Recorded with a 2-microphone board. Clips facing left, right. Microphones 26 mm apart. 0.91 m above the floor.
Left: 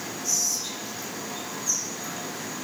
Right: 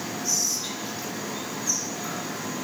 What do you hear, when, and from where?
0.2 s whispering: 30° right (ahead or behind), 4 m